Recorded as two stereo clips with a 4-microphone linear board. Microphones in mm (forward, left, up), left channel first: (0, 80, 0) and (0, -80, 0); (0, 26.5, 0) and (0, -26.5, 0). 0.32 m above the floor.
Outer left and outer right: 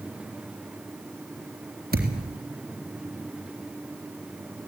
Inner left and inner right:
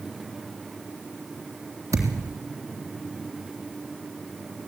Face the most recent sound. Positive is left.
turn(degrees=-70)  # may be behind; listen again after turning